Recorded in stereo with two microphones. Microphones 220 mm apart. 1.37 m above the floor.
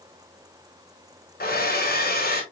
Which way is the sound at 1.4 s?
45° left (ahead or behind).